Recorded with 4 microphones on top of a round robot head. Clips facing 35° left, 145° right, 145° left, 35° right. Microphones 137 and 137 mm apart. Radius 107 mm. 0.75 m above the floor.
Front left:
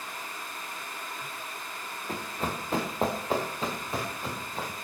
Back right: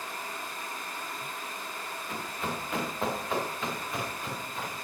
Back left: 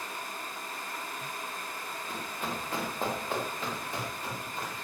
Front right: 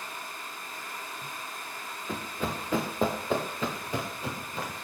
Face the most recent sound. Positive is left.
turn(degrees=-30)